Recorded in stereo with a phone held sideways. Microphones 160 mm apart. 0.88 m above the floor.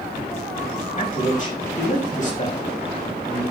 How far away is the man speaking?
About 5.5 m.